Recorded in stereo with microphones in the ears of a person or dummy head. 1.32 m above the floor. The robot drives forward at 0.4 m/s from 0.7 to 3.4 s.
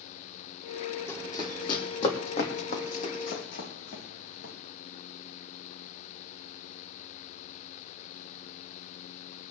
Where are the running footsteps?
15° left (ahead or behind), 3 m; by 4.5 s 65° left (ahead or behind), 4 m.